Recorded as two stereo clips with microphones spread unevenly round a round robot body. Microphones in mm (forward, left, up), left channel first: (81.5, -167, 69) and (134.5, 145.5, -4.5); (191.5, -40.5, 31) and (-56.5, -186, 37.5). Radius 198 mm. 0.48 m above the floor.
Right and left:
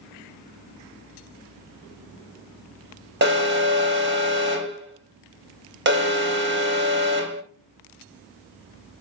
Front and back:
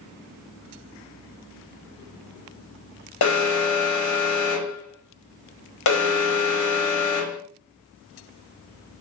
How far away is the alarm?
About 4.5 m.